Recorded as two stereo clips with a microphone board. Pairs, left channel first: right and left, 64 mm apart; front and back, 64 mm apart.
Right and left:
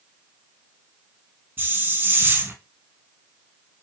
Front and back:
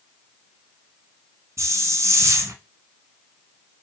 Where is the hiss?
145° left, 0.5 m.